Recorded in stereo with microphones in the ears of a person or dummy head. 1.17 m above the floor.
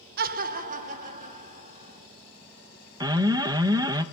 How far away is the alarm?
About 0.7 m.